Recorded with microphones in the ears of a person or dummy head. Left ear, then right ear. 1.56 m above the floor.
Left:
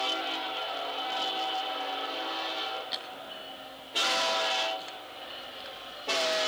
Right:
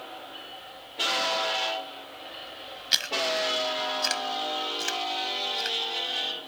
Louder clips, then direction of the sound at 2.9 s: Right 12 dB; 65° right (ahead or behind).